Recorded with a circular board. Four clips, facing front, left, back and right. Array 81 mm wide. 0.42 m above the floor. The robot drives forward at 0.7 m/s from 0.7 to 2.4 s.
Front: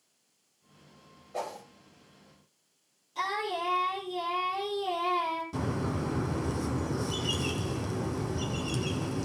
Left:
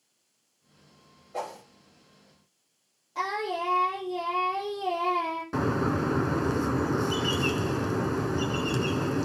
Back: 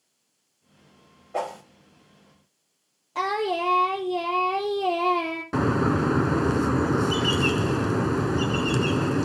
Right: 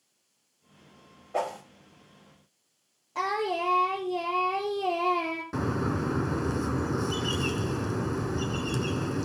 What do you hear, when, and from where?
1.3 s a whoosh: 130° right, 2 m; by 1.6 s 135° right, 2 m
3.1 s singing: 155° right, 3.5 m
5.5 s a bird: 170° left, 1.0 m